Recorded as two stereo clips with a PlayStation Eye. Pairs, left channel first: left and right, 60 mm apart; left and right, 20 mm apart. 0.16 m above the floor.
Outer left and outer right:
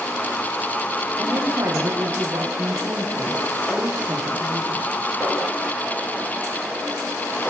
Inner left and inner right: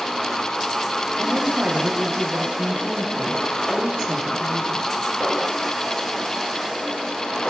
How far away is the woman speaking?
About 7.5 m.